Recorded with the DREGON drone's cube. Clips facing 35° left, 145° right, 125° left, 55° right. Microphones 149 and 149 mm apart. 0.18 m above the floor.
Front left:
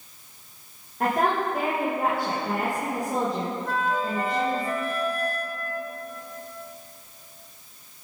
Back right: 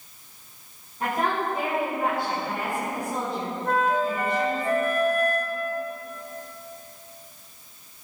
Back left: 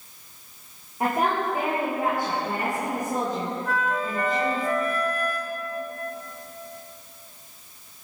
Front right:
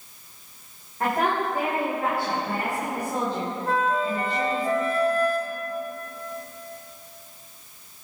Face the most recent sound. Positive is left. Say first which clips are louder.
# back right 6 dB, front right 6 dB
turn(degrees=-115)